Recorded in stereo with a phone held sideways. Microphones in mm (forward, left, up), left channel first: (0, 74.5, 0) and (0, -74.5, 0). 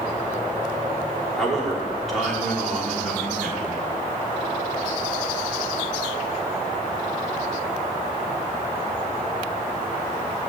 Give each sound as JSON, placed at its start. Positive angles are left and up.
{"t": 1.4, "sound": "a man speaking", "side_deg": 0, "distance_m": 3.0}